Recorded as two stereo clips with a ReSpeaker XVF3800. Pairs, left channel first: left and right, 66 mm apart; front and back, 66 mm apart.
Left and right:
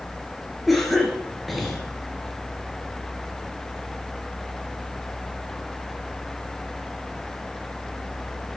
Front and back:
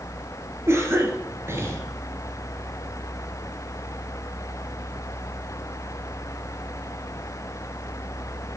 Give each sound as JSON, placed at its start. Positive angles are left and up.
{"t": 0.7, "sound": "a cough", "azimuth_deg": 180, "distance_m": 1.7}